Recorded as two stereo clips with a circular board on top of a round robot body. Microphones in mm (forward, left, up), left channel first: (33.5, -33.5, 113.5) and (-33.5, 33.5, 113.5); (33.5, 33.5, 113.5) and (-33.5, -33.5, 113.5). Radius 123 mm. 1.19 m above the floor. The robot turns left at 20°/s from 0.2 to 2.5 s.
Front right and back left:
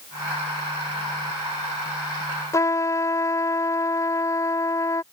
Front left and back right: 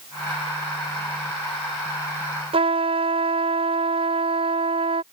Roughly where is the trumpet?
Right.